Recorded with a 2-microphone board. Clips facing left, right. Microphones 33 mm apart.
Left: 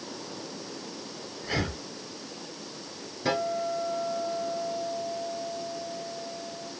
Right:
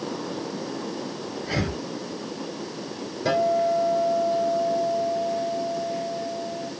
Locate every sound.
1.4 s breathing: 5° left (ahead or behind), 2 m
3.2 s a guitar: 5° left (ahead or behind), 3 m